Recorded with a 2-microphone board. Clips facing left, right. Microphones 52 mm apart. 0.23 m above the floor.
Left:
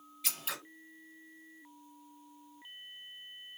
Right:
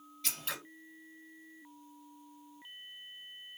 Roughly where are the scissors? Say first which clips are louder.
Even; centre.